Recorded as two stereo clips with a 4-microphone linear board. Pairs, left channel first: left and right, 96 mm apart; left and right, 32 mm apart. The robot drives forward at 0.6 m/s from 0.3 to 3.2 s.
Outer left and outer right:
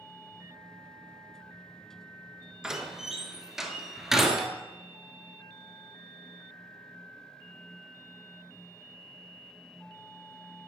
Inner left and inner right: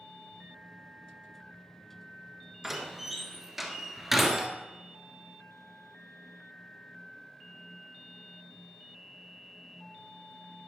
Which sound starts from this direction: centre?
A door slam, at 2.6 s.